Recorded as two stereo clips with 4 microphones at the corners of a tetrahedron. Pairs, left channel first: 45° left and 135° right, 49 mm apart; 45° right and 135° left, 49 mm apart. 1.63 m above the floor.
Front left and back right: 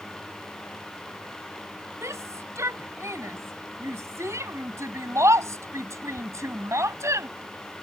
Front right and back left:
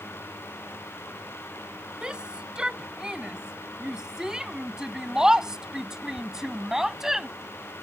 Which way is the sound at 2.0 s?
150° right.